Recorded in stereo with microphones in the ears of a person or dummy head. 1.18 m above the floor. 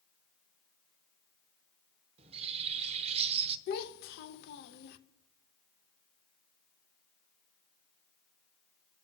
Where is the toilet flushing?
I don't hear a toilet flushing.